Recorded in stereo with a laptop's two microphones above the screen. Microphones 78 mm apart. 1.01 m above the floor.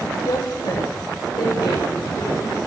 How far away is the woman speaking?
About 2.5 m.